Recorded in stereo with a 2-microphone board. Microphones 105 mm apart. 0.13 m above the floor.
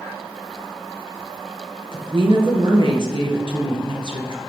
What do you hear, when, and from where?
1.9 s a woman speaking: 50° right (ahead or behind), 2.5 m